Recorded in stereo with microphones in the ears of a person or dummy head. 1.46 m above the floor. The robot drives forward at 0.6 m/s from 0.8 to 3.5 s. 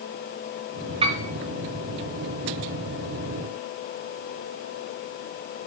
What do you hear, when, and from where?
1.0 s a piano: 30° right (ahead or behind), 2.5 m